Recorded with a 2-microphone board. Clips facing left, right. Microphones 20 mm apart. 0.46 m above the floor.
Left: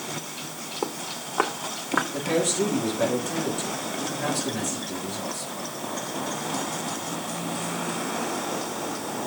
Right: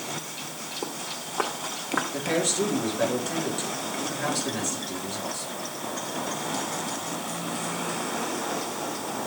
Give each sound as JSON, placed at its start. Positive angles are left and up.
{"t": 0.8, "sound": "footsteps", "side_deg": 25, "distance_m": 1.9}
{"t": 2.1, "sound": "a man speaking", "side_deg": -15, "distance_m": 6.5}